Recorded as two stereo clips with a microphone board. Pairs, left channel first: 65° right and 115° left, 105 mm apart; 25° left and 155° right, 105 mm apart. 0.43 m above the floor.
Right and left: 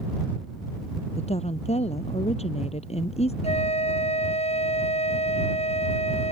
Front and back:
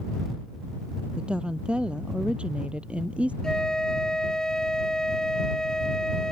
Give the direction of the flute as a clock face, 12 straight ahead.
2 o'clock.